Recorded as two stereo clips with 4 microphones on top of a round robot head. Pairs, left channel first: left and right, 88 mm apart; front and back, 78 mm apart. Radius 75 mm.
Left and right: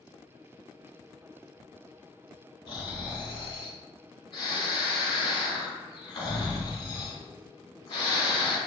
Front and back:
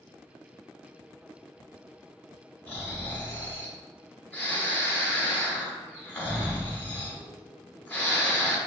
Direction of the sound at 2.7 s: 65° left.